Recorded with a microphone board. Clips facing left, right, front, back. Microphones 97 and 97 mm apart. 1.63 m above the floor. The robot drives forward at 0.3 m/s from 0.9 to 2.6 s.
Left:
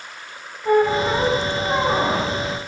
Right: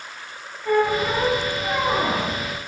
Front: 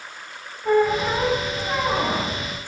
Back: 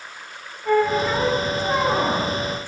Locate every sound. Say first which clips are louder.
0.7 s a squeak: left 3 dB, even; 55° left, 0.5 m; by 2.4 s 140° left, 0.6 m